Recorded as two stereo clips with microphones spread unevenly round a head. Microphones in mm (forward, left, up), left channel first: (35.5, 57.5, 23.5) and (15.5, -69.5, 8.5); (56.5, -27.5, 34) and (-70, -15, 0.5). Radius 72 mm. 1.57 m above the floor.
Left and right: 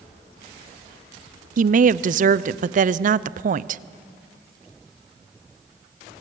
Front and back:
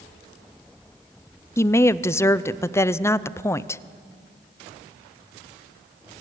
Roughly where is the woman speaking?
Right.